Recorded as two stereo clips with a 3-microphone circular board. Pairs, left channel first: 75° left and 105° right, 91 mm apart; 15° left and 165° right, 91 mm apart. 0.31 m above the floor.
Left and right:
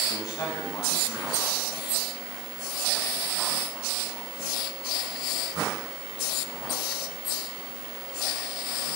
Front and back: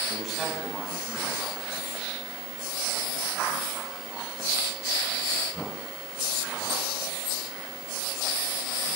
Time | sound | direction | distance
0.1 | a man speaking | 105° left | 2.5 m